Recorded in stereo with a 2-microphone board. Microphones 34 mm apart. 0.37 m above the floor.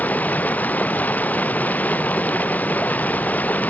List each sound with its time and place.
0.0 s running water: 55° left (ahead or behind)